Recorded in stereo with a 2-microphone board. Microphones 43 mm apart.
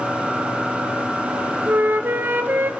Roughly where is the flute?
Right.